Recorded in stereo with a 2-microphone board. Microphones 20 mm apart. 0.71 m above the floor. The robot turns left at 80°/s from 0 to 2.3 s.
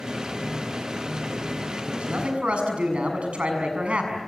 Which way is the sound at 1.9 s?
70° right.